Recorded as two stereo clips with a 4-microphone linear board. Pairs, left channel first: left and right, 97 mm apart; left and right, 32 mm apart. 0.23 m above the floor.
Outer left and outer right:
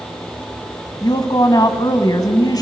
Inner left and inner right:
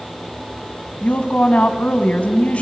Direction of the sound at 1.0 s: 40° left (ahead or behind).